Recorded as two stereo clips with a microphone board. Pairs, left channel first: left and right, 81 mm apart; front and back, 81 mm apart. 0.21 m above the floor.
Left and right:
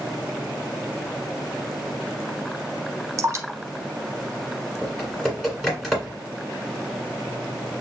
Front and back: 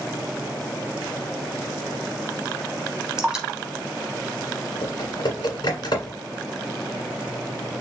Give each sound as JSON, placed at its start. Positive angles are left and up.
{"t": 3.2, "sound": "dripping", "azimuth_deg": -100, "distance_m": 0.8}
{"t": 4.8, "sound": "typing on a keyboard", "azimuth_deg": 0, "distance_m": 1.8}